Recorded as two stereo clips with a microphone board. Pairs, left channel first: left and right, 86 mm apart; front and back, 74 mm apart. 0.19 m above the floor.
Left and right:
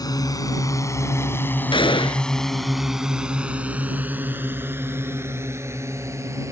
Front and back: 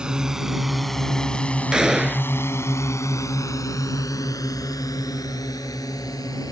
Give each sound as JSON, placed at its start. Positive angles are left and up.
{"t": 0.0, "sound": "a drone", "azimuth_deg": 105}
{"t": 1.7, "sound": "a gunshot", "azimuth_deg": 100}